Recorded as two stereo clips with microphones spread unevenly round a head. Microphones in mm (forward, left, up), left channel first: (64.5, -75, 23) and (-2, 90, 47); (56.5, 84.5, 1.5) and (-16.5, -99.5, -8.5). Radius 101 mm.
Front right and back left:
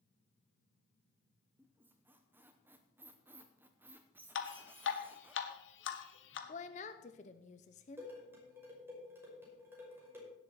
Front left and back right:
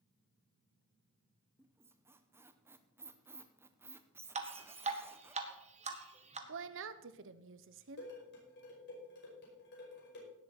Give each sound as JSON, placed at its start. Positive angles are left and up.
{"t": 1.6, "sound": "a squeak", "azimuth_deg": 175, "distance_m": 0.7}
{"t": 4.3, "sound": "dripping", "azimuth_deg": -55, "distance_m": 1.6}
{"t": 6.5, "sound": "a woman speaking", "azimuth_deg": -125, "distance_m": 0.8}
{"t": 8.0, "sound": "dishes clattering", "azimuth_deg": 35, "distance_m": 5.5}